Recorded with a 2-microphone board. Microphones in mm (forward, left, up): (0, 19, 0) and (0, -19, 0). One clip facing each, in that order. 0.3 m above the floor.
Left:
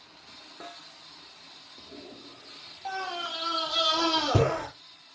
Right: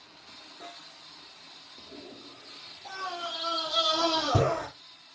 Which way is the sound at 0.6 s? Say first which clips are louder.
Left 2 dB; 90° left.